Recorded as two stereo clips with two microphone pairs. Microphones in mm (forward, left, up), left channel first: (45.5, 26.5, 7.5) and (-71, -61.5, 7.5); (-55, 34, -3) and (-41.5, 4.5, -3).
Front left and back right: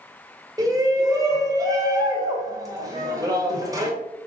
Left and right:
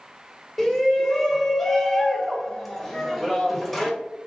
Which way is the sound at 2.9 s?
170° right.